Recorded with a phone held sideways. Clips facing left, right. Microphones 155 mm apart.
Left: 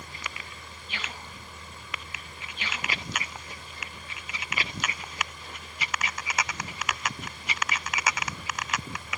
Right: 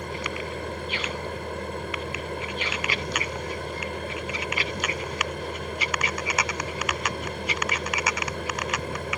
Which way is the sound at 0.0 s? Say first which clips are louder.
Right 11 dB; 70° right (ahead or behind).